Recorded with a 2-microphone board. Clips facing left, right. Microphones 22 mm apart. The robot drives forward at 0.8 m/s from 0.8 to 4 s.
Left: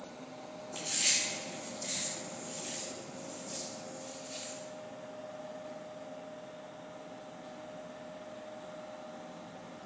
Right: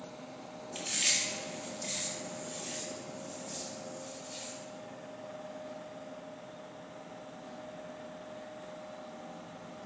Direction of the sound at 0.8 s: 30° right (ahead or behind).